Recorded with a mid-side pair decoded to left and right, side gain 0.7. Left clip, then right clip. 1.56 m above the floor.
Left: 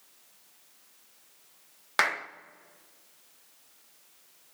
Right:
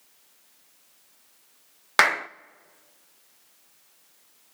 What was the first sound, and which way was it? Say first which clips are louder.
A clap: right 7 dB; 30° right.